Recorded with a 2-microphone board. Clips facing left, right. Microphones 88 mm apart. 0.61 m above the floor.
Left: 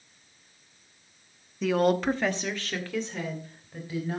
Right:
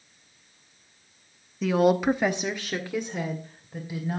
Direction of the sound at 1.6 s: Centre (ahead or behind).